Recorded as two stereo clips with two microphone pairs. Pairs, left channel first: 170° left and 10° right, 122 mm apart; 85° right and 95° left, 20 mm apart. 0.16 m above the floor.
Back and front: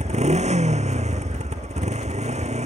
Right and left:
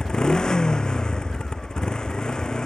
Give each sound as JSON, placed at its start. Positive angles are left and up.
{"t": 0.0, "sound": "a motorcycle", "azimuth_deg": -35}